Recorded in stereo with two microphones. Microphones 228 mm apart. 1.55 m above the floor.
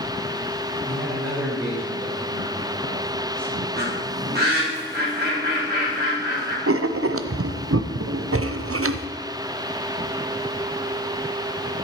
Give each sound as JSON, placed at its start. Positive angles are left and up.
{"t": 0.8, "sound": "a man speaking", "side_deg": -10, "distance_m": 5.0}
{"t": 3.8, "sound": "a bird", "side_deg": -45, "distance_m": 4.0}
{"t": 6.7, "sound": "writing", "side_deg": -75, "distance_m": 0.6}